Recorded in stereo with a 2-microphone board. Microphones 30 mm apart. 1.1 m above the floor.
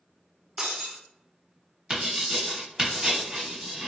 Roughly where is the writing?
Right.